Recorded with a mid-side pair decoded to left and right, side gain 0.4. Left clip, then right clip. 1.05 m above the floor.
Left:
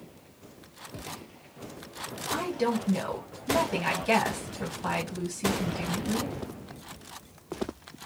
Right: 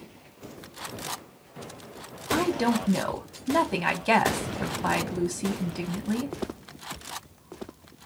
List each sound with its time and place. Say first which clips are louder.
2.3 s a woman speaking: right 4 dB; 45° right, 0.9 m